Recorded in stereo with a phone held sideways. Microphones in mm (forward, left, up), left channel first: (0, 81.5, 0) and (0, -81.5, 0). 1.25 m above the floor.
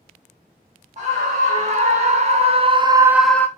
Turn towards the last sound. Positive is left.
turn(degrees=15)  # may be behind; listen again after turning